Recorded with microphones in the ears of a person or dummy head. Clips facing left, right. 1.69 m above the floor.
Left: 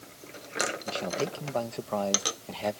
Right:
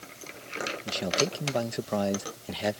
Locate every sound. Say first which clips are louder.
0.8 s a man speaking: right 5 dB; 20° right (ahead or behind)